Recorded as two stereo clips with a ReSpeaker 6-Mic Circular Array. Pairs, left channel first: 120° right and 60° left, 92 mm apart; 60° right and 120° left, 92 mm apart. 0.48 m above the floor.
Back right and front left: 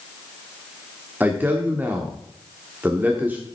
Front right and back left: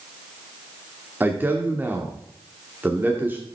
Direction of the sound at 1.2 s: 100° left.